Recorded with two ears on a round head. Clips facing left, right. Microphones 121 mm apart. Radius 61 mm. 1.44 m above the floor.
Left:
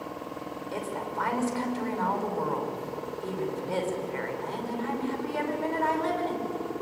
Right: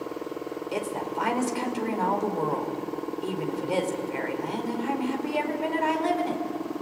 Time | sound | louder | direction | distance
0.7 | a woman speaking | right 3 dB | 20° right (ahead or behind) | 5 m